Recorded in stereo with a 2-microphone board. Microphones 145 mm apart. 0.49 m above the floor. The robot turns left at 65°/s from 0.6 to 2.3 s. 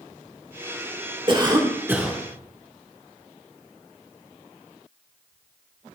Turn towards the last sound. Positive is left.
turn(degrees=175)